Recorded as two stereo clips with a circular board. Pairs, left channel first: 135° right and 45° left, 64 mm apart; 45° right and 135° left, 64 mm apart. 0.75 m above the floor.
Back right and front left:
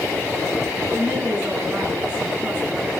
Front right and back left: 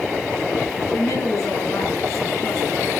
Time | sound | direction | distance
0.9 | a woman speaking | 15° right | 9.5 m